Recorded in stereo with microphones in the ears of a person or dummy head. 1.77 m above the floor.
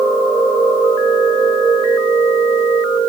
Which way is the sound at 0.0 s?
10° right (ahead or behind).